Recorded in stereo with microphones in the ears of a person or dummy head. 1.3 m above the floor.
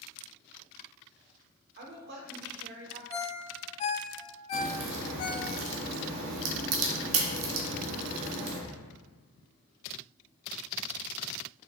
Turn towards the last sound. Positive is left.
turn(degrees=-75)  # may be behind; listen again after turning